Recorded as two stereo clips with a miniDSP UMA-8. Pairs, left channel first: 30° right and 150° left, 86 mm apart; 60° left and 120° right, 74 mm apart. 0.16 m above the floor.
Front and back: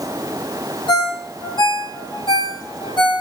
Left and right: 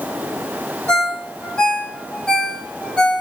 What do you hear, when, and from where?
0.9 s a ringtone: 15° right, 2.5 m